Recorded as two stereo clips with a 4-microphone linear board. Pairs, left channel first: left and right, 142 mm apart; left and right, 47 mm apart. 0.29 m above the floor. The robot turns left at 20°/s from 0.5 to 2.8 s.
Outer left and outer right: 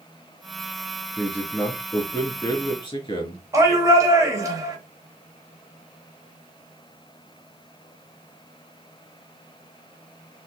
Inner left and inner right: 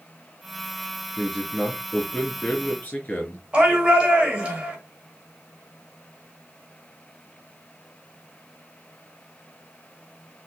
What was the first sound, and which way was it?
A man speaking, straight behind.